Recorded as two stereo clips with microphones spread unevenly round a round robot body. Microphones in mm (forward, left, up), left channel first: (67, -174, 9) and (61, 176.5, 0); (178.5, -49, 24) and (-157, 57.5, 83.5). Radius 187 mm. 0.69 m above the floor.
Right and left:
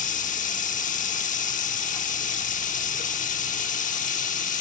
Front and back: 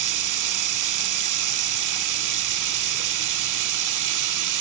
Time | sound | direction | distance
0.0 | running water | 160° right | 1.5 m